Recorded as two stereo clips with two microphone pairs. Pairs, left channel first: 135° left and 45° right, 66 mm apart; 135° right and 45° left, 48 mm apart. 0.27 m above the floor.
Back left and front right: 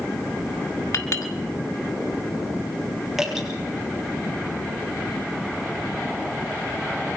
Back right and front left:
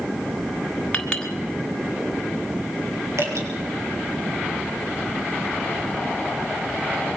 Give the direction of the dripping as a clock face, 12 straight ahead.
11 o'clock.